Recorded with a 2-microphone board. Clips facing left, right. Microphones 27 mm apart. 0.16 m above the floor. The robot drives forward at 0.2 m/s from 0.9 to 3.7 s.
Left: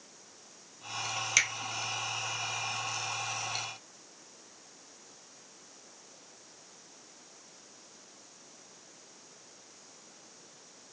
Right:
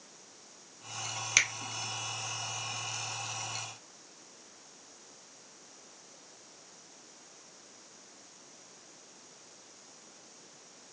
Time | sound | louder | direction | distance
1.4 | a finger snap | right 1 dB | 5° right (ahead or behind) | 1.0 m